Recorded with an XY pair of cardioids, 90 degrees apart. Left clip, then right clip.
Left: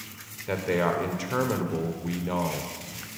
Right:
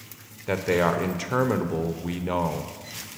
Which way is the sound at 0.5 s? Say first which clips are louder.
Right 3 dB; 30° right.